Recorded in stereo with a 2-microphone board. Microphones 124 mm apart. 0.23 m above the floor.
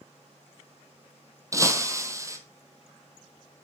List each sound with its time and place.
1.5 s breaking glass: 25° right (ahead or behind), 1.7 m